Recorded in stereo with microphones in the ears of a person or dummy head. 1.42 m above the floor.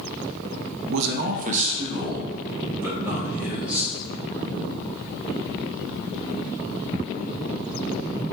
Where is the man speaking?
75° right (ahead or behind), 0.6 m; by 3.9 s 10° right (ahead or behind), 2.5 m.